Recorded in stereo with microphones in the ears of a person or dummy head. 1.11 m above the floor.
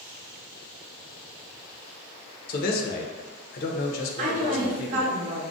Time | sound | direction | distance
2.5 | a man speaking | 55° left (ahead or behind) | 0.6 m
4.2 | a woman speaking | 40° right (ahead or behind) | 0.8 m